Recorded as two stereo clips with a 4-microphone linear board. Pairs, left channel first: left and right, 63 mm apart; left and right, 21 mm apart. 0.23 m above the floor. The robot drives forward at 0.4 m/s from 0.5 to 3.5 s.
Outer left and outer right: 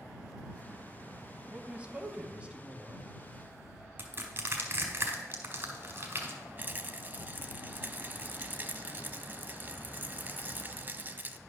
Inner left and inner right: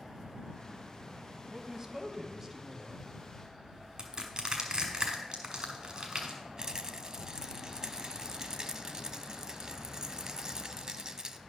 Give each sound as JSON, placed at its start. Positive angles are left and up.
{"t": 1.5, "sound": "a man speaking", "side_deg": -25, "distance_m": 1.2}
{"t": 4.0, "sound": "crushing", "side_deg": -35, "distance_m": 1.7}
{"t": 6.6, "sound": "a rattle", "side_deg": -35, "distance_m": 0.6}